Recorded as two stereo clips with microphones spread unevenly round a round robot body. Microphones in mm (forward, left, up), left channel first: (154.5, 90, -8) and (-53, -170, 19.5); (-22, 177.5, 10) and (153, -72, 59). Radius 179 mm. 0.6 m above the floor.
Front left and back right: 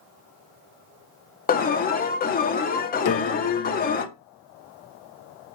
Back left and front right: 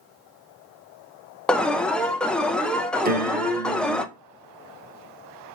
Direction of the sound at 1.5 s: 60° left.